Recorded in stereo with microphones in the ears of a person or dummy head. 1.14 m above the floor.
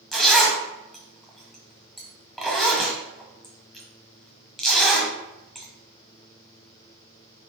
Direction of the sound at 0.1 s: Centre (ahead or behind).